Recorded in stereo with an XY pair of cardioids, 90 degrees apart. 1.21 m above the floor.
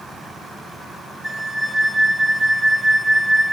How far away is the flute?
About 1.5 m.